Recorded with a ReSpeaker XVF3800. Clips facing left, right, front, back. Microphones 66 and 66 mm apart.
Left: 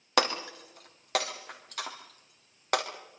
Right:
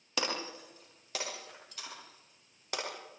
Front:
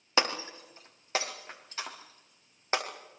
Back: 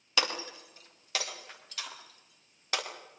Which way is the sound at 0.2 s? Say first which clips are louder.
Left 8 dB, front 3 dB; 60° left.